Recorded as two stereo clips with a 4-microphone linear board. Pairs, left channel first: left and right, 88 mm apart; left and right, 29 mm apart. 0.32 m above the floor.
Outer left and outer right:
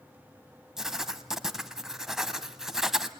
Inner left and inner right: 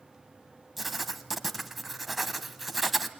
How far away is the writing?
About 0.9 m.